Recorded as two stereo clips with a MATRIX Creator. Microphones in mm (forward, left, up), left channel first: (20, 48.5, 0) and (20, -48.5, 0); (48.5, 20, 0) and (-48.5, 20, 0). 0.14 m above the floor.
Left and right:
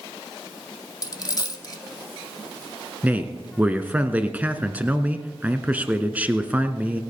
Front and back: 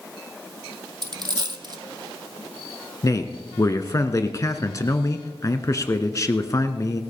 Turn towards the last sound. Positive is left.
turn(degrees=-25)